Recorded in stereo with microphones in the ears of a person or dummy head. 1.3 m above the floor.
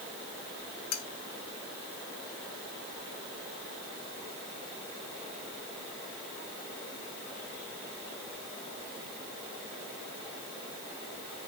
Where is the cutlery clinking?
70° left (ahead or behind), 1.4 m.